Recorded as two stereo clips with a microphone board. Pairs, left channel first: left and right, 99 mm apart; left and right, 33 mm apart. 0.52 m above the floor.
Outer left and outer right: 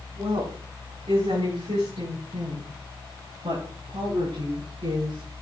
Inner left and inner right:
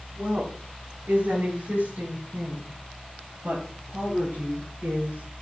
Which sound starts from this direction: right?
A woman speaking, at 0.2 s.